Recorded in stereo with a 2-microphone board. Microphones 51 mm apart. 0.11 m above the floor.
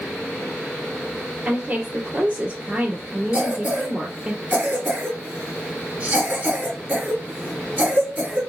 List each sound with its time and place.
1.4 s a woman speaking: 35° right (ahead or behind), 1.8 m
3.3 s a cough: 30° right (ahead or behind), 1.9 m